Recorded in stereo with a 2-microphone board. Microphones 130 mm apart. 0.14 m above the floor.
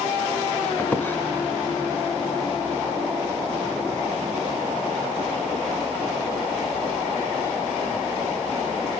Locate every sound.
0.8 s a squeak: 15° left (ahead or behind), 0.7 m